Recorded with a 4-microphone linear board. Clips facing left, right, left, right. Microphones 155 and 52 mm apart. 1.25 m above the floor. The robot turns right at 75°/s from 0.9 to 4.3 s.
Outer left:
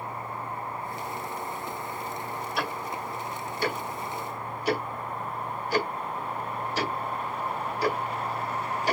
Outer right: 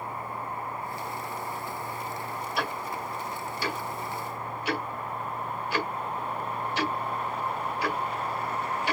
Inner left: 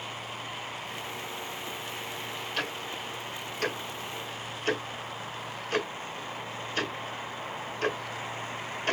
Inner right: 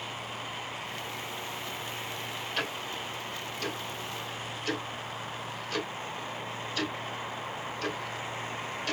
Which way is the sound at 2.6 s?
Centre (ahead or behind).